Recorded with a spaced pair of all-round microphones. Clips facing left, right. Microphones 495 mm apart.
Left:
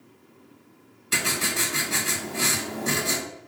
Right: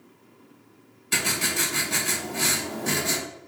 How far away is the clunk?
No clunk in this recording.